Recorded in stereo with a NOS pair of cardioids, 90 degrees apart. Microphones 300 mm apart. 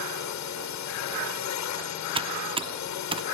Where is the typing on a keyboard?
20° right.